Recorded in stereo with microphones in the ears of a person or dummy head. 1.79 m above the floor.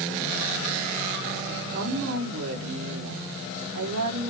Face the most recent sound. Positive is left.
turn(degrees=-90)